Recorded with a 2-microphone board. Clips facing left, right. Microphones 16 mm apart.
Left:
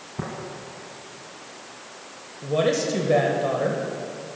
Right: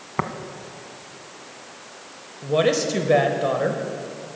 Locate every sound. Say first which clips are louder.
0.2 s tapping: right 7 dB; 75° right (ahead or behind), 0.8 m
2.4 s a woman speaking: right 2 dB; 20° right (ahead or behind), 0.9 m